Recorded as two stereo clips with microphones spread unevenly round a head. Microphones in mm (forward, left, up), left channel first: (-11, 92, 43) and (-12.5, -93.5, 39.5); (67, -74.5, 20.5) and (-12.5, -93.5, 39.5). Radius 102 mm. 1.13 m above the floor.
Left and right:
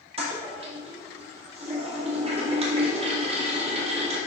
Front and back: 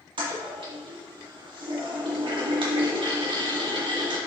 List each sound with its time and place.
0.2 s a toilet flushing: 150° right, 2 m